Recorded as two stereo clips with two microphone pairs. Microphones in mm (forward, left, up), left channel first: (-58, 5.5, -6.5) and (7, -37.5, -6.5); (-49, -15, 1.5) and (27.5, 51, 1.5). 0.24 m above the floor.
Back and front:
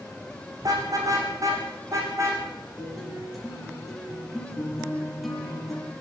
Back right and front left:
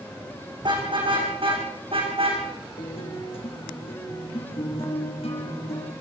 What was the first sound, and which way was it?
A car horn, 5° left.